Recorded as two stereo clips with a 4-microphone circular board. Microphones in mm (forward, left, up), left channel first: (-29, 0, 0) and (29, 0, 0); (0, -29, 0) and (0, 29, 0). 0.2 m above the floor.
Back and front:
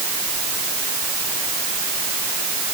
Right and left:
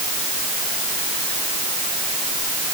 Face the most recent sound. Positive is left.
No sound to turn to.